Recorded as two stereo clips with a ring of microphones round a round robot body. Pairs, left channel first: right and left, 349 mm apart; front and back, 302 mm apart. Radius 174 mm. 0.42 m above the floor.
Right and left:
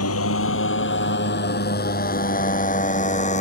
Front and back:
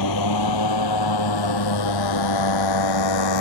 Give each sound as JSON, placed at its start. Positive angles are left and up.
{"t": 0.0, "sound": "a motorcycle", "azimuth_deg": -40}